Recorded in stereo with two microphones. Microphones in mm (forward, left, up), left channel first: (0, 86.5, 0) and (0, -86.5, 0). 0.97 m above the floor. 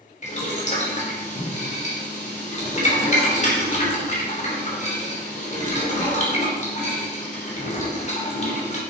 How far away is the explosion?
No explosion in this recording.